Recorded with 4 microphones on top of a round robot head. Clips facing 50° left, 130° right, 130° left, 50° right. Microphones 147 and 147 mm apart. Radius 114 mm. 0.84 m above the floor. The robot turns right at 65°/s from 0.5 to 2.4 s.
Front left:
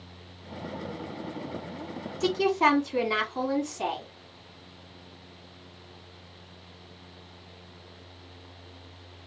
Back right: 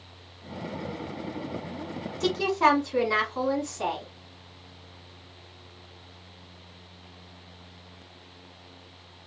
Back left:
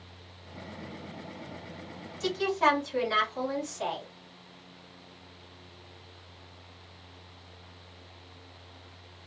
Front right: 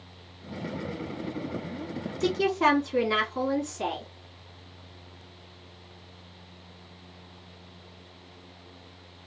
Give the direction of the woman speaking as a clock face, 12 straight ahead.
1 o'clock.